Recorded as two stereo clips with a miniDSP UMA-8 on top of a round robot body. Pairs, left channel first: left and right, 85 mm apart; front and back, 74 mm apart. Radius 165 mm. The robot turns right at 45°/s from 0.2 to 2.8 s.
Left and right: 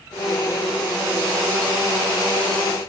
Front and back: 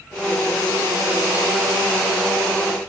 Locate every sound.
Only background noise.